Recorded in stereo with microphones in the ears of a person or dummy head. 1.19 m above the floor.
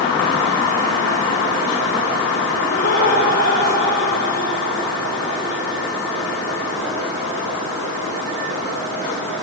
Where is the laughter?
50° left (ahead or behind), 5 m; by 5.8 s 30° left (ahead or behind), 5 m.